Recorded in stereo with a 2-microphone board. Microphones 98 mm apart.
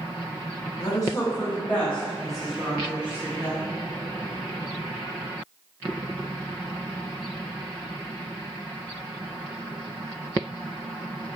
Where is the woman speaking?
40° left (ahead or behind), 1.2 m; by 3.7 s 20° right (ahead or behind), 1.6 m.